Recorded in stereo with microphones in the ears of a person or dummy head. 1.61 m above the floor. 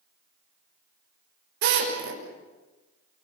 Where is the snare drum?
I don't hear a snare drum.